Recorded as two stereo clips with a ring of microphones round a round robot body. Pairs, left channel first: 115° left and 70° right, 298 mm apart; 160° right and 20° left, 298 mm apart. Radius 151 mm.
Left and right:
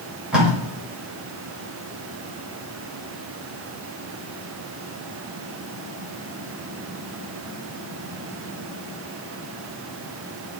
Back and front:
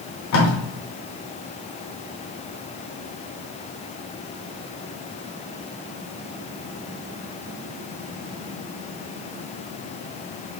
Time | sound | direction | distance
0.3 | tape being pulled | 155° right | 1.6 m